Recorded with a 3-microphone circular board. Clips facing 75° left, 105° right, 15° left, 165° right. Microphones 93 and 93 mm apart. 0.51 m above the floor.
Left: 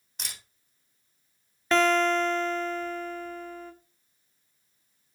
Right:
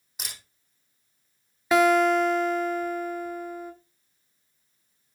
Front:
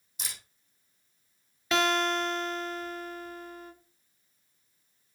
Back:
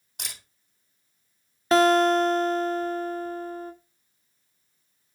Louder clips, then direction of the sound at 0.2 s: Right 1 dB, back 1 dB; 170° left.